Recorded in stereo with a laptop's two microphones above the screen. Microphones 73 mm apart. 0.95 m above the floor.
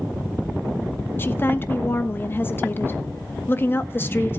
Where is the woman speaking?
30° left (ahead or behind), 1.3 m.